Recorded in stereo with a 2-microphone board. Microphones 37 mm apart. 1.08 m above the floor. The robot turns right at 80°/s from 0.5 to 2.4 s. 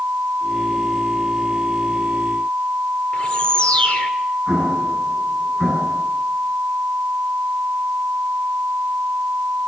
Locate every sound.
3.1 s a bird: 30° left (ahead or behind), 1.7 m
4.5 s an explosion: 5° right (ahead or behind), 8.5 m